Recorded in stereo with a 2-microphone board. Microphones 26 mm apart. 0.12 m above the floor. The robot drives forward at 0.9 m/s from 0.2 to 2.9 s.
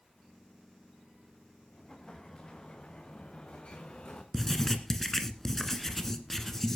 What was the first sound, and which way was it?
An explosion, 30° left (ahead or behind).